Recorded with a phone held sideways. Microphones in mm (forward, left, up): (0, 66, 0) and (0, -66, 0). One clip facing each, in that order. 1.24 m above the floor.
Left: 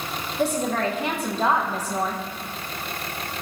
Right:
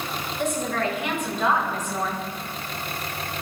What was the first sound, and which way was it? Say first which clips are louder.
A woman speaking: left 3 dB; 35° left (ahead or behind).